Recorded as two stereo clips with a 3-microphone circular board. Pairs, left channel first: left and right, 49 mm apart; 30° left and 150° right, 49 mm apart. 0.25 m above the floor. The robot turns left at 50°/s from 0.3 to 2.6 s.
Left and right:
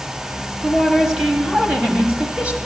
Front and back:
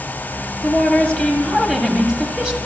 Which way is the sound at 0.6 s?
10° right.